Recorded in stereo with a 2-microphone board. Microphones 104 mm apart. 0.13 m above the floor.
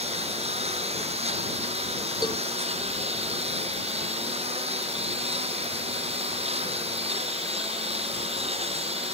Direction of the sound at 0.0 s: 85° right.